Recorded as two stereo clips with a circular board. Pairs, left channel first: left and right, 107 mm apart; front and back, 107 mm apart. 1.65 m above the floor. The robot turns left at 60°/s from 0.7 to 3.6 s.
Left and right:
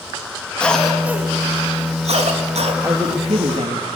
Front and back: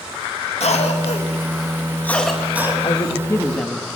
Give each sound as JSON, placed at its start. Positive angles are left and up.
{"t": 0.6, "sound": "a cough", "azimuth_deg": 10, "distance_m": 3.0}
{"t": 2.8, "sound": "a woman speaking", "azimuth_deg": -35, "distance_m": 2.5}